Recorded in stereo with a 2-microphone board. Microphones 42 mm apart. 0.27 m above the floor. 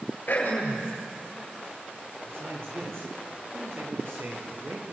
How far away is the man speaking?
About 6 m.